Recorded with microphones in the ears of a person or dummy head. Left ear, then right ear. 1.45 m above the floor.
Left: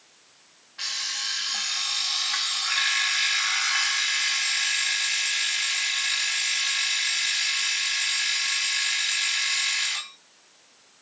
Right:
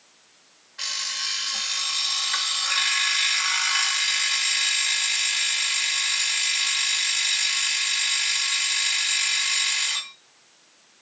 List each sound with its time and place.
0.8 s an alarm clock: 5° right (ahead or behind), 1.1 m